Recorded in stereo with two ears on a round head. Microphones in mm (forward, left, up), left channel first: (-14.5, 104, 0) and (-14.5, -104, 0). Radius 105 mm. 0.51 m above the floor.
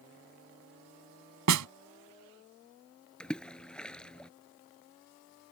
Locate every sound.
1.5 s a snare drum: 80° right
3.2 s a splash: 5° left (ahead or behind)